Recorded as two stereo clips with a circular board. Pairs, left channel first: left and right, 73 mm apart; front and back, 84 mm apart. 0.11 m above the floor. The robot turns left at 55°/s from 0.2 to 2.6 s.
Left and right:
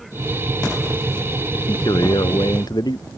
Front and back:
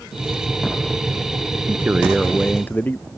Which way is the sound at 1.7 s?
120° left.